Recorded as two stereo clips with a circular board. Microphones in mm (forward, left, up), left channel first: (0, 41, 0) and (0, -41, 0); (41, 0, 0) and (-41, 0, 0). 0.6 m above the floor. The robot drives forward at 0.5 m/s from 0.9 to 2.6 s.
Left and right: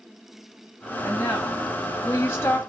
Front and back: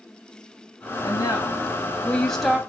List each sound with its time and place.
1.0 s a woman speaking: 25° left, 0.9 m; by 2.6 s 110° left, 0.6 m